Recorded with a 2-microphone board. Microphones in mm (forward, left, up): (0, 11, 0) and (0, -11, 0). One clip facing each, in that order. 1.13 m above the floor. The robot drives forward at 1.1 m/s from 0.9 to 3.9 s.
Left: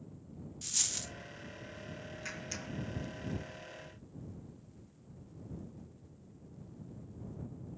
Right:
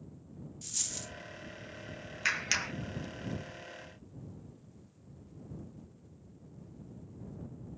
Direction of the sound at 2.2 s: 60° right (ahead or behind).